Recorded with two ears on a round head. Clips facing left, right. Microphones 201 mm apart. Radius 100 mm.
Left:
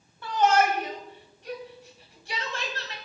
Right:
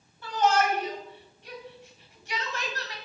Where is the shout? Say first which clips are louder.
Left 2 dB; 55° left (ahead or behind), 3.5 m; by 3.0 s 25° left (ahead or behind), 3 m.